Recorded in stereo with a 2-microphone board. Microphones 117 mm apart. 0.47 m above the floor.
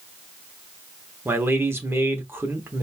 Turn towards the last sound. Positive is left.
turn(degrees=-20)  # may be behind; listen again after turning